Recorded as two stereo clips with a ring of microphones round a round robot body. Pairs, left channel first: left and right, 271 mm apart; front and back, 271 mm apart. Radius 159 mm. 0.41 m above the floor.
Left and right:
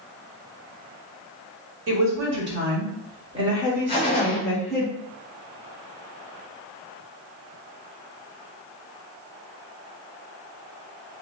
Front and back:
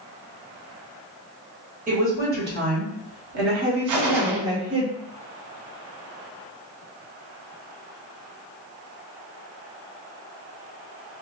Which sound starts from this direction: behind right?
A woman speaking, at 1.9 s.